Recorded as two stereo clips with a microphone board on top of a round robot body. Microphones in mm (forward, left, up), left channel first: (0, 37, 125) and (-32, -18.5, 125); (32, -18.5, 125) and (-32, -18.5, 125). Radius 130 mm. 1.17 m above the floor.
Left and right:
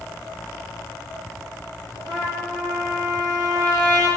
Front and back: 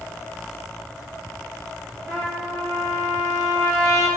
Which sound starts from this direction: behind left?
A trumpet, at 2.1 s.